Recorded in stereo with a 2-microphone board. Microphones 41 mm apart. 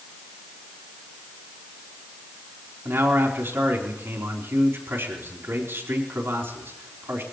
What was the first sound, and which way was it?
A man speaking, 75° right (ahead or behind).